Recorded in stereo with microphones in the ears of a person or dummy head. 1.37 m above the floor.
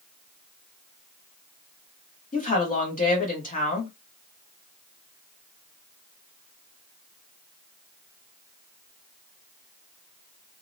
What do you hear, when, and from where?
2.3 s a woman speaking: 40° left (ahead or behind), 1.0 m